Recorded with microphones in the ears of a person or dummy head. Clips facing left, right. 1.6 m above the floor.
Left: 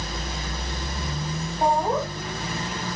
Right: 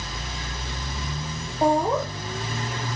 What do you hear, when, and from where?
1.6 s laughter: 85° right, 3 m